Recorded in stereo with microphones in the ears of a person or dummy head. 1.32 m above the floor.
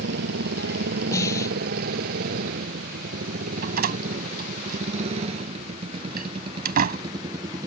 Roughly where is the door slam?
Right.